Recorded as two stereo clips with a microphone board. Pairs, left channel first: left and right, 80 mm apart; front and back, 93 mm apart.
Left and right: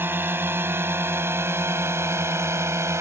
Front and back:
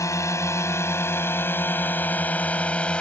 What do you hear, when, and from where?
0.0 s a drone: 40° right; by 3.0 s 70° right